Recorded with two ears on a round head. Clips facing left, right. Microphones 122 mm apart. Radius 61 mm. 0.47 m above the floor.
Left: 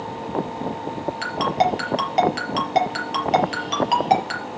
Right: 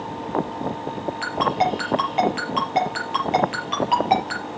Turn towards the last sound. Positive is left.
turn(degrees=45)  # may be behind; listen again after turning